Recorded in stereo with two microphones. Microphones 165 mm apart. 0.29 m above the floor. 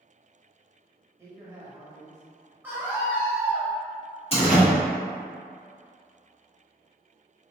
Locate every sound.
1.2 s a man speaking: 15° right (ahead or behind), 0.9 m
2.6 s a scream: 10° right (ahead or behind), 1.0 m
4.3 s a door slam: 40° left (ahead or behind), 1.1 m